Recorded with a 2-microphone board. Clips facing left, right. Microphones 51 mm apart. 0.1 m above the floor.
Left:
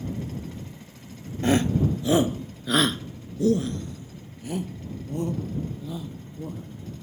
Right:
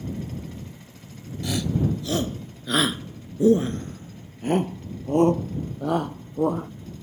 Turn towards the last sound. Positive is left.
turn(degrees=-70)  # may be behind; listen again after turning